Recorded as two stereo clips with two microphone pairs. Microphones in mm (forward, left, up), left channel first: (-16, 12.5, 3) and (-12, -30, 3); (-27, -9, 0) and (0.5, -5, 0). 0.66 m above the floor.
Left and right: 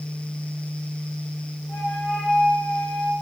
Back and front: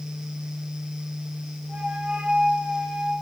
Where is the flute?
45° left, 1.9 m.